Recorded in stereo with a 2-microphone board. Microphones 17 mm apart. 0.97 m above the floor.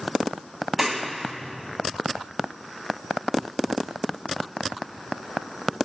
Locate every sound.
0.8 s a clap: 20° right (ahead or behind), 1.2 m